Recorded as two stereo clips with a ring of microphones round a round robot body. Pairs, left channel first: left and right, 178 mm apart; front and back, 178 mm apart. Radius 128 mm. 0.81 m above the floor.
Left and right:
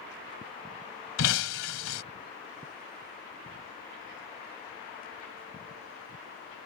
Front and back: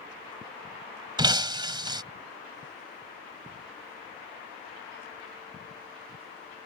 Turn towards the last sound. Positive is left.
turn(degrees=115)